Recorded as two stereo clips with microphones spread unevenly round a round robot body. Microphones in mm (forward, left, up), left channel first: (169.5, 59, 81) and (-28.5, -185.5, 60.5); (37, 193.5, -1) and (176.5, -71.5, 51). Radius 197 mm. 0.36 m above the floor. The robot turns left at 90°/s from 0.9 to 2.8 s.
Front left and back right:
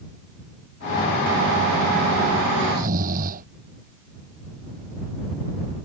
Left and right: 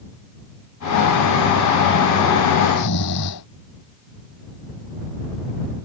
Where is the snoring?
Straight behind; by 3.5 s 165° left.